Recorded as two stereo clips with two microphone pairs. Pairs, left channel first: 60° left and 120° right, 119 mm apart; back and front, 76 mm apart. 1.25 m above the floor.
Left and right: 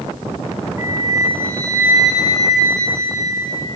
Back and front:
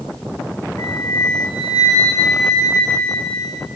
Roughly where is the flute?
Behind.